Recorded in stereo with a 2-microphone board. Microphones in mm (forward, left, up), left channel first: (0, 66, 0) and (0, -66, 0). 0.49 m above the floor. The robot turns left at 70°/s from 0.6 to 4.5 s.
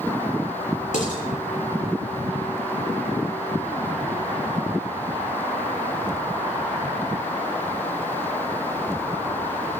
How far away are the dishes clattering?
About 7 m.